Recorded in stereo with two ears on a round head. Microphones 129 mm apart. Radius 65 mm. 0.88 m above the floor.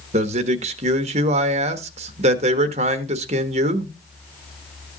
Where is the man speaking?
45° right (ahead or behind), 1.3 m.